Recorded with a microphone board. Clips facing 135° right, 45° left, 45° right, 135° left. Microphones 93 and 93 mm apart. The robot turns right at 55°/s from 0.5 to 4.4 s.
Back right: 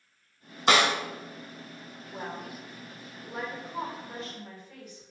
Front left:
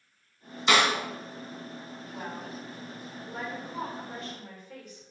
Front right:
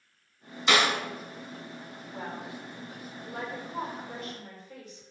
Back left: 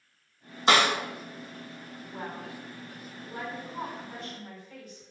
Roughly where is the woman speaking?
Behind right.